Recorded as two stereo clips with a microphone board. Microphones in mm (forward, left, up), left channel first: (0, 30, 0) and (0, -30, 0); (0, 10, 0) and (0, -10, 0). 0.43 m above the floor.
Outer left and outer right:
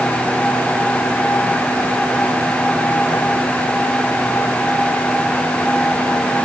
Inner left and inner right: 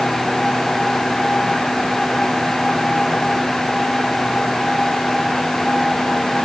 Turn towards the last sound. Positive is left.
No sound to turn to.